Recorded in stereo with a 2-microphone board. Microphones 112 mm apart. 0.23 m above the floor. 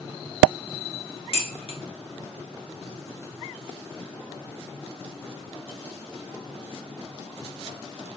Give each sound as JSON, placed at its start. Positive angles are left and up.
{"t": 1.3, "sound": "dishes clattering", "side_deg": 60, "distance_m": 1.9}